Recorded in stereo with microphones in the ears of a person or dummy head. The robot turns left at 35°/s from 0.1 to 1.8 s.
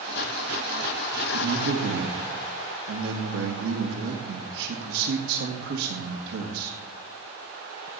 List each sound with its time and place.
1.3 s a man speaking: 80° right, 1.8 m; by 6.8 s 75° right (ahead or behind), 1.8 m